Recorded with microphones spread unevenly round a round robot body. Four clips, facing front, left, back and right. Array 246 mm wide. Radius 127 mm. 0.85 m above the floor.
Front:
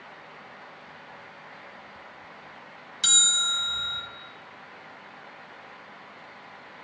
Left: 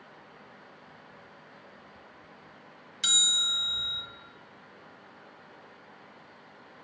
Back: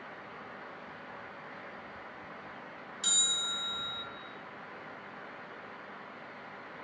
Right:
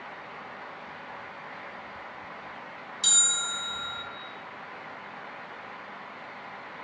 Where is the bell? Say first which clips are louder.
Right 2 dB, front 10 dB; 25° left, 1.5 m.